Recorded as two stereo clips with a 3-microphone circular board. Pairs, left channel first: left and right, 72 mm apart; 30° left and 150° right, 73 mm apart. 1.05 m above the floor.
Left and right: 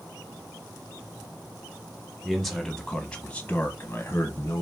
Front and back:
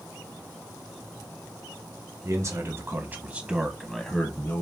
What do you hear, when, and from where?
2.2 s a man speaking: 175° right, 1.2 m; by 4.6 s 75° left, 1.0 m